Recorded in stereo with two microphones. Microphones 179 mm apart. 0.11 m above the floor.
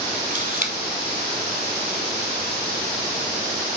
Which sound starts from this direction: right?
A camera shutter, at 0.3 s.